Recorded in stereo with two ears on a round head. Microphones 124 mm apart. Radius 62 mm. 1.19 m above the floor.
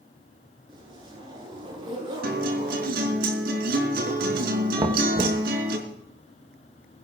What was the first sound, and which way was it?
A zipper, 35° right (ahead or behind).